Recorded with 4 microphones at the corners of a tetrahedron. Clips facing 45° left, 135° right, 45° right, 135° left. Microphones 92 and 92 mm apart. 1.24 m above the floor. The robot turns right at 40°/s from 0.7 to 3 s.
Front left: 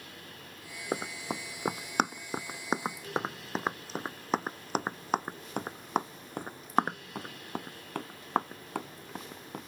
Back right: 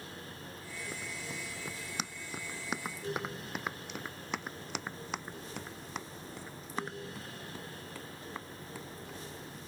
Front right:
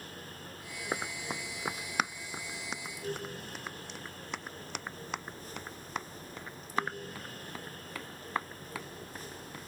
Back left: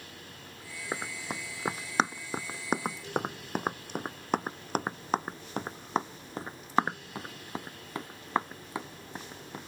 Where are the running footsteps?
40° left; by 9.7 s 65° left.